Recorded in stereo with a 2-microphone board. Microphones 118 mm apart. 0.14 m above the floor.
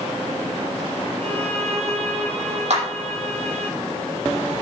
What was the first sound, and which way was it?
A violin, 60° right (ahead or behind).